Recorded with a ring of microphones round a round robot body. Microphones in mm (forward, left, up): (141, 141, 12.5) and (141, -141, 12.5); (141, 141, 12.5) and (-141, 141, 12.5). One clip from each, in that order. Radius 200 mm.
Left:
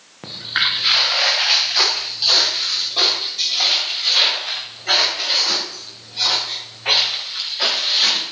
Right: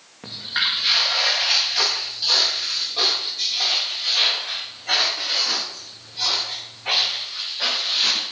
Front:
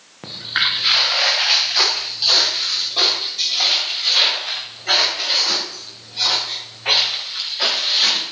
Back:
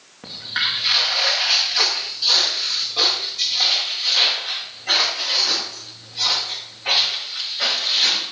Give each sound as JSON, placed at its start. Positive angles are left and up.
{"t": 0.2, "sound": "footsteps", "azimuth_deg": 40, "distance_m": 4.0}